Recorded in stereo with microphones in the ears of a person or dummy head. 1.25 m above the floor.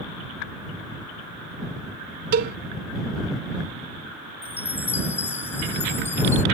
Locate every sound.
2.3 s a cowbell: 55° right (ahead or behind)
4.4 s a chime: 10° left (ahead or behind)